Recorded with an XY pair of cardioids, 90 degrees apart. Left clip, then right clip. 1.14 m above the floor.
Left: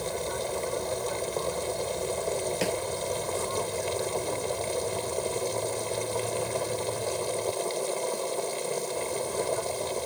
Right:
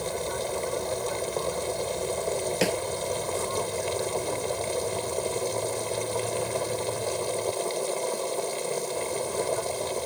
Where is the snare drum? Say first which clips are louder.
Right 5 dB; 40° right.